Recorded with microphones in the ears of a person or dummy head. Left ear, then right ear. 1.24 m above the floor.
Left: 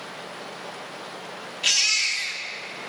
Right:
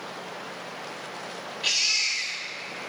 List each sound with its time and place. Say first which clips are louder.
1.6 s a baby crying: left 3 dB; 30° left (ahead or behind), 1.8 m